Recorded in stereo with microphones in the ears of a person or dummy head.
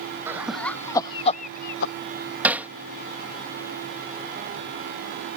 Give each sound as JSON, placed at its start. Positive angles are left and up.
{"t": 0.3, "sound": "laughter", "side_deg": -5}
{"t": 2.4, "sound": "hammering", "side_deg": -5}